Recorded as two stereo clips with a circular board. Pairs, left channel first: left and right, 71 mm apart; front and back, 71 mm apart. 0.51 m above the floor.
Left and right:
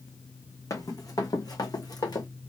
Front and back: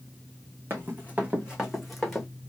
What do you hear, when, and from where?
0.7 s running footsteps: 120° left, 2 m; by 2.3 s 80° left, 2.0 m